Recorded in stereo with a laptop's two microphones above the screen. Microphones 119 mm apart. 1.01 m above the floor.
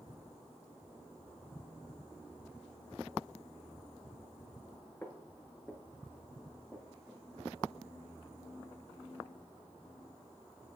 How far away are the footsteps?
About 1.0 m.